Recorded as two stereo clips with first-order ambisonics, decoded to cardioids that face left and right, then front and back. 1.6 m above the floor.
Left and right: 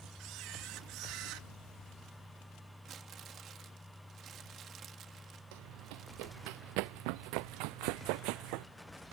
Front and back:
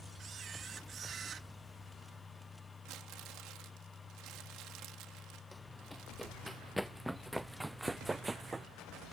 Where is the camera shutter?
120° right.